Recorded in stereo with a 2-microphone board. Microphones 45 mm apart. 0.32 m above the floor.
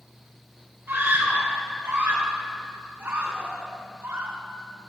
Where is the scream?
70° right (ahead or behind), 4.5 m; by 4.4 s 65° right (ahead or behind), 3 m.